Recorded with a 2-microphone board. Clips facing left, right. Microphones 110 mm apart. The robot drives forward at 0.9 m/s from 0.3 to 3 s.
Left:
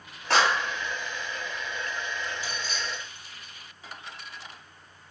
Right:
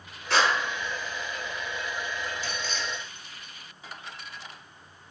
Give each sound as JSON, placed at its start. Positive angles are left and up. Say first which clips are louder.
{"t": 0.3, "sound": "a clap", "louder": "left 1 dB", "side_deg": 70, "distance_m": 2.5}
{"t": 2.4, "sound": "keys jangling", "louder": "right 1 dB", "side_deg": 10, "distance_m": 1.5}